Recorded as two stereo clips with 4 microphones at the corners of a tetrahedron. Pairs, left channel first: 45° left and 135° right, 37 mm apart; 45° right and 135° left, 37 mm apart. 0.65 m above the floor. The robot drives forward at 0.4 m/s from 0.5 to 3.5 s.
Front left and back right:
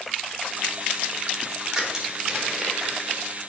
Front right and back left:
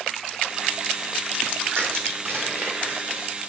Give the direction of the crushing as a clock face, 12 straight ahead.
7 o'clock.